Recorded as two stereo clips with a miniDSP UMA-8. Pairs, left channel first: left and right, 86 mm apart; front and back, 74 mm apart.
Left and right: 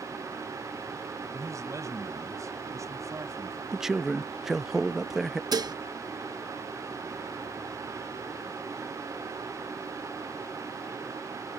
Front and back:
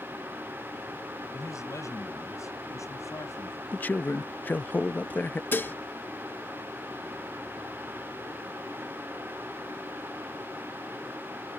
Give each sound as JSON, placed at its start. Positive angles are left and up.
{"t": 1.3, "sound": "a man speaking", "azimuth_deg": -40}
{"t": 3.7, "sound": "a man speaking", "azimuth_deg": -10}
{"t": 5.5, "sound": "dishes clattering", "azimuth_deg": -60}